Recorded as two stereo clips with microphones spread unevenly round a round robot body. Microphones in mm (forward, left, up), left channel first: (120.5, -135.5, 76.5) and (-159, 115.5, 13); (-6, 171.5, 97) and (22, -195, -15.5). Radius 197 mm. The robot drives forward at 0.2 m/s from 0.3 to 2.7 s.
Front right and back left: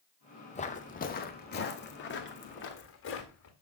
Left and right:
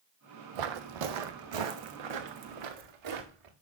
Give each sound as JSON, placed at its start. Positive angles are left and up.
{"t": 0.6, "sound": "footsteps", "azimuth_deg": -110, "distance_m": 1.0}